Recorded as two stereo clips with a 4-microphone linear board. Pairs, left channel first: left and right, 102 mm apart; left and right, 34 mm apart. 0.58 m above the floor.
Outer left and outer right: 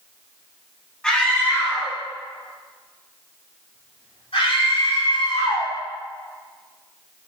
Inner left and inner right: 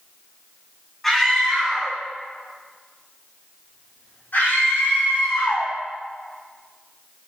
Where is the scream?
10° left (ahead or behind), 4.5 m; by 5.7 s 80° left, 5 m.